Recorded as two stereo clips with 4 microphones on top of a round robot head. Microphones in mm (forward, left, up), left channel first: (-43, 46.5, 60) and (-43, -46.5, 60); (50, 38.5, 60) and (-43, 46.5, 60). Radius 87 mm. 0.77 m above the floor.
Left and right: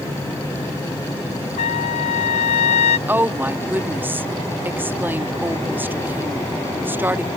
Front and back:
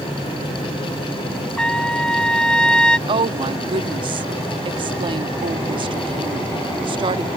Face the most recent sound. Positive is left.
turn(degrees=-160)